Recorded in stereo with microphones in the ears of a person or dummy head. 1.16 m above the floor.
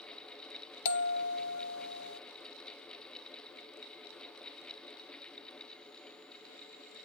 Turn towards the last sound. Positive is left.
turn(degrees=60)  # may be behind; listen again after turning